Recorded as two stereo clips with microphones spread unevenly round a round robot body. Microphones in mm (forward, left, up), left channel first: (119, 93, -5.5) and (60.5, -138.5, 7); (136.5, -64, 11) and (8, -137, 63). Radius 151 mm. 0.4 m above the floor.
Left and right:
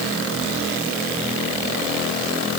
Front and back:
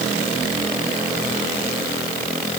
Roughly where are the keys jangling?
No keys jangling in this recording.